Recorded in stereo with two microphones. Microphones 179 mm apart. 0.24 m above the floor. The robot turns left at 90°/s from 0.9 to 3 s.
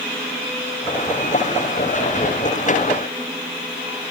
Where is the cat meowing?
I don't hear a cat meowing.